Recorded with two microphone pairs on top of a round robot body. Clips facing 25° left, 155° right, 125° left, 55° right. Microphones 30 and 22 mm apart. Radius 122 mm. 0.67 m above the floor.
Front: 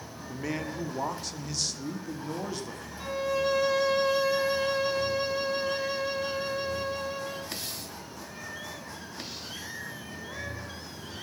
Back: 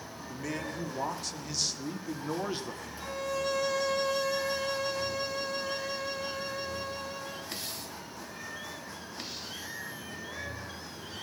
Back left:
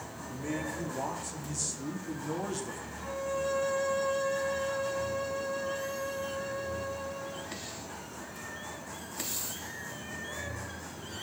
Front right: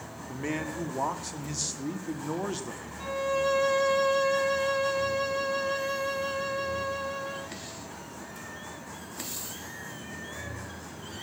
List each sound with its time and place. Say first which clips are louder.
0.3 s a man speaking: front 3 dB, front right 3 dB; 45° right, 2.5 m; by 2.8 s 110° right, 1.9 m
3.0 s a violin: front 5 dB, front right 6 dB; 45° right, 1.1 m